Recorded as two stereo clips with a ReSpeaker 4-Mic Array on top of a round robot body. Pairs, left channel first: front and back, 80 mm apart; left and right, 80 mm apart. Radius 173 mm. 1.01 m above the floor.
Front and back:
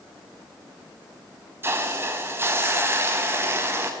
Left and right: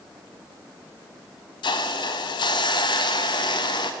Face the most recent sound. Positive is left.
turn(degrees=120)